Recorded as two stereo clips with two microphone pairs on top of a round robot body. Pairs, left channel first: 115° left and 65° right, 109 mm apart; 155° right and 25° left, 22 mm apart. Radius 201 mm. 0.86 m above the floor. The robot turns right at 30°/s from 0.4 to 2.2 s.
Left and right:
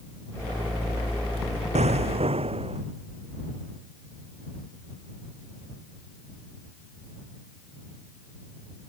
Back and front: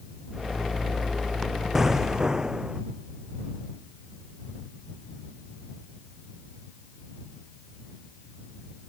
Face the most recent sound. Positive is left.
turn(degrees=-35)